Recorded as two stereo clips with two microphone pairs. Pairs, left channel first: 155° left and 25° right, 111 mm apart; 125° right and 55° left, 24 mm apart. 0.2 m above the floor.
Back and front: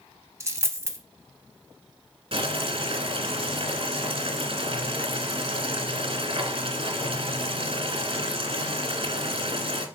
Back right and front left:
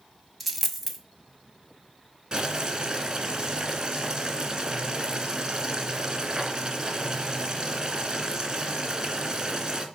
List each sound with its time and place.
0.4 s a dropped coin: 30° right, 0.7 m
2.3 s boiling: 5° right, 1.1 m